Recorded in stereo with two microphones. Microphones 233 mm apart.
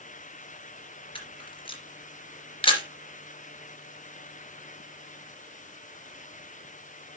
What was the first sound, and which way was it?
A camera shutter, 20° left (ahead or behind).